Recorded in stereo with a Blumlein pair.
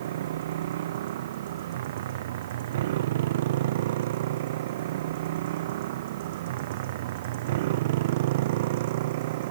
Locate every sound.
0.0 s a motorcycle: 55° right; by 9.5 s 50° right